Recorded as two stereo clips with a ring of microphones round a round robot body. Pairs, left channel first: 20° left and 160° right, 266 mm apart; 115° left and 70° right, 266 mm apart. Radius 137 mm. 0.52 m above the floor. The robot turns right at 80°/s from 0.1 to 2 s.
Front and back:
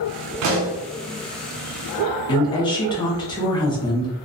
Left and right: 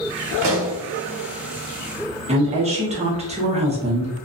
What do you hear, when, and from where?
0.4 s a pop: 130° right, 1.2 m; by 0.8 s 100° right, 1.2 m
2.3 s a woman speaking: 30° right, 0.9 m